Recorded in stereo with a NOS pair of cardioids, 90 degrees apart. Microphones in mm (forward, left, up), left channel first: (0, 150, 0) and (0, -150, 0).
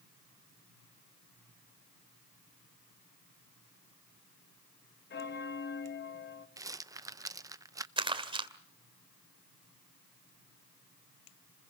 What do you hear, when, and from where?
5.1 s a bell: 35° left, 1.3 m
6.6 s a rattle: 10° right, 0.6 m
8.0 s crumpling: 15° right, 2 m